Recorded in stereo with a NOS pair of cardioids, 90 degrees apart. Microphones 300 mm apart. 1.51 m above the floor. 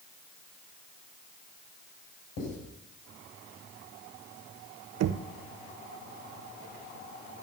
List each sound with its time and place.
2.4 s writing: 65° left, 8.5 m
5.0 s knocking: 70° right, 0.9 m